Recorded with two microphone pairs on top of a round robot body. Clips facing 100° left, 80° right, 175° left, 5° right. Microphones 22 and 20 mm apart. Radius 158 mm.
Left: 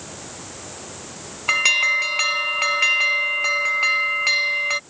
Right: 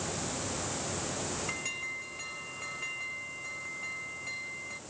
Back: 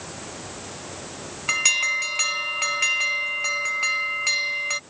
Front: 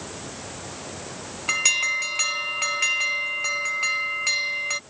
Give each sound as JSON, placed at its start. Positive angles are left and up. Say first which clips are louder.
{"t": 1.5, "sound": "an alarm", "louder": "left 19 dB, back 1 dB", "azimuth_deg": 85}